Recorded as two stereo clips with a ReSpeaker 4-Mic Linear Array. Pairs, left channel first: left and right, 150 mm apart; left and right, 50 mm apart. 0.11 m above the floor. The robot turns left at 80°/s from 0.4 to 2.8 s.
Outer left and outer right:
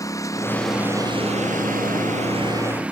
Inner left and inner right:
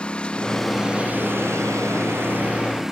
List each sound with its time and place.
0.0 s a lawn mower: 25° left (ahead or behind); by 2.9 s 10° right (ahead or behind)